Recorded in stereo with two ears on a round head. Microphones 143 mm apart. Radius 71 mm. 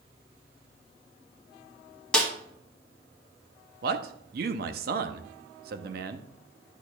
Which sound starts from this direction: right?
A man speaking, at 3.8 s.